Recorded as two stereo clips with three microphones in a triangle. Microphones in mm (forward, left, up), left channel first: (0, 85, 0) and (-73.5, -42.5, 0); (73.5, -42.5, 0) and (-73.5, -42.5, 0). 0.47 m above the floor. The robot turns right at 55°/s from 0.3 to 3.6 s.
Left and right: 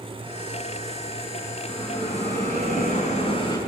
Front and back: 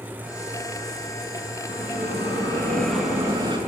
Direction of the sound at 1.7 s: 20° left.